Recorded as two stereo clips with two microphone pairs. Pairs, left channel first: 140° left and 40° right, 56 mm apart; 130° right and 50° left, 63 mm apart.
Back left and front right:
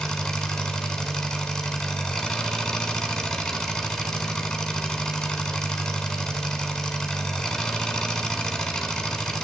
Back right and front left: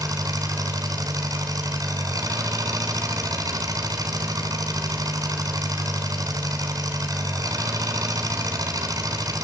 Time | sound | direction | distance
0.0 | an engine running | 60° left | 3.5 m